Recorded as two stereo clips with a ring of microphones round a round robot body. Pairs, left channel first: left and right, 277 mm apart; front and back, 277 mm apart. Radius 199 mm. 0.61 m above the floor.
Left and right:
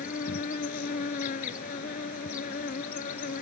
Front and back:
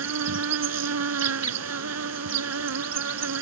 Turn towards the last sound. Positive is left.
turn(degrees=155)